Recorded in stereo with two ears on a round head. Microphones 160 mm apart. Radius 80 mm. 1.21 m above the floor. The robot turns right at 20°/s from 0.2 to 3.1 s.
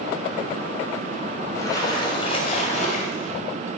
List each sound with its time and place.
1.6 s a splash: 15° left, 3.5 m; by 3.3 s 50° left, 3.5 m